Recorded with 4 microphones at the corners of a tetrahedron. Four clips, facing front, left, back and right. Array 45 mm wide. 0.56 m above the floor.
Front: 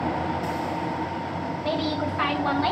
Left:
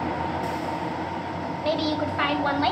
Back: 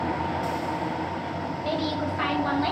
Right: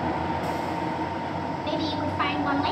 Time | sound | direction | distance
1.6 | a woman speaking | 85° left | 2.5 m